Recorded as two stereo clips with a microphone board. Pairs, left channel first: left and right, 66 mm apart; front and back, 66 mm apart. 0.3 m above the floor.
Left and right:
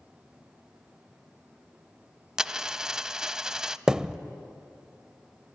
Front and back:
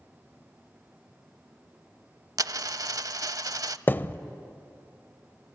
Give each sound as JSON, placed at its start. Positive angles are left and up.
{"t": 2.4, "sound": "a dropped coin", "azimuth_deg": -170, "distance_m": 0.5}
{"t": 3.9, "sound": "a thud", "azimuth_deg": -20, "distance_m": 0.6}